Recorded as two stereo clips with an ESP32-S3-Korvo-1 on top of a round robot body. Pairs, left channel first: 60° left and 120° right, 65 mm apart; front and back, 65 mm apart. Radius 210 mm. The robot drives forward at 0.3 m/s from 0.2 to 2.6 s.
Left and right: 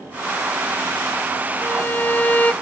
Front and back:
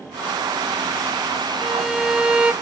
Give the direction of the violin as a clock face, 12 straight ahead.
9 o'clock.